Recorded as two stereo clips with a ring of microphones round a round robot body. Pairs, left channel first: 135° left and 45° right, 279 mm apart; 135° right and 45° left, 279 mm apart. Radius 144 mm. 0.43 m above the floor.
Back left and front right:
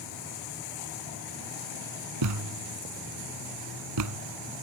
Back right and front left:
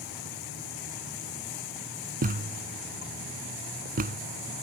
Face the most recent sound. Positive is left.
turn(degrees=-15)